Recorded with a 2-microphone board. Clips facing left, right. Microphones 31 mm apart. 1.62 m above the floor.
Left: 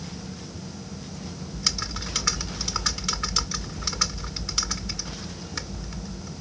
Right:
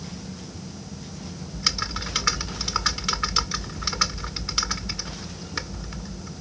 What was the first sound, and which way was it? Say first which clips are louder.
Typing on a keyboard: right 3 dB; 20° right (ahead or behind).